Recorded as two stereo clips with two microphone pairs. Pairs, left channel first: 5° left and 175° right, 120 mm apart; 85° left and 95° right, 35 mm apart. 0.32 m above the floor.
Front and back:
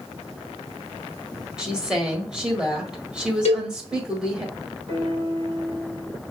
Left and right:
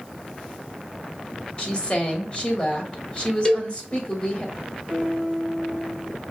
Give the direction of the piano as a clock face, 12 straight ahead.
7 o'clock.